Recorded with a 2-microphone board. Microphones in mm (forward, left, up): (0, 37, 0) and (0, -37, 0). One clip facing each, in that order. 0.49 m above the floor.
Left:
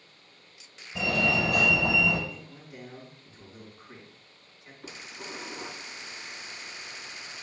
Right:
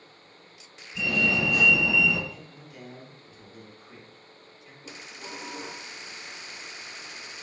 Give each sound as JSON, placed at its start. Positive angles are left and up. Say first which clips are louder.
{"t": 0.9, "sound": "a fire alarm", "louder": "even", "side_deg": 55, "distance_m": 3.5}
{"t": 2.3, "sound": "a man speaking", "louder": "left 1 dB", "side_deg": 30, "distance_m": 4.5}
{"t": 4.8, "sound": "dishes clattering", "louder": "left 1 dB", "side_deg": 55, "distance_m": 3.5}